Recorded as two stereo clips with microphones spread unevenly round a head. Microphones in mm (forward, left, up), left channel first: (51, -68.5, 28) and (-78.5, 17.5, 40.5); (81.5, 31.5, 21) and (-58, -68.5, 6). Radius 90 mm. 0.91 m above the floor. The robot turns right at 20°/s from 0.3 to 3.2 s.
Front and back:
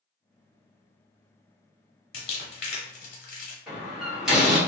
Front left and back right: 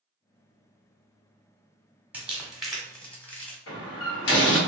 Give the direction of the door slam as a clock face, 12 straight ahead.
10 o'clock.